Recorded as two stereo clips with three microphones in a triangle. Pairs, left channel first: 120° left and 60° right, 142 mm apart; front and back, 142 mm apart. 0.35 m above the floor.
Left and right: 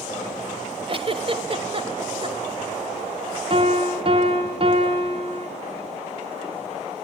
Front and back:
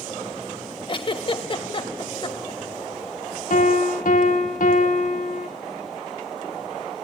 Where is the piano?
15° right, 3.5 m.